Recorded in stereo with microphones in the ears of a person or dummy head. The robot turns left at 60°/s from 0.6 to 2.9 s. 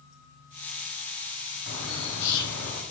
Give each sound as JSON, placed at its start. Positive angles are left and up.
{"t": 1.7, "sound": "a bird", "azimuth_deg": 125, "distance_m": 0.8}